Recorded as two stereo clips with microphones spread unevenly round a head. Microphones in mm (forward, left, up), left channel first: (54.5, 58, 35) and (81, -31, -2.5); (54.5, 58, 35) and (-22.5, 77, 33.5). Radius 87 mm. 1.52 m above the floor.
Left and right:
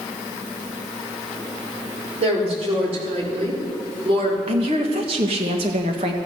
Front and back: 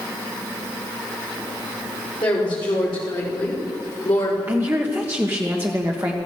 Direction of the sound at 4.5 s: 120° right.